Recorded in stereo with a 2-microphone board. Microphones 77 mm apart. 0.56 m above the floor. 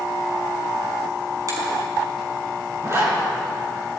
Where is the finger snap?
50° right (ahead or behind), 5 m.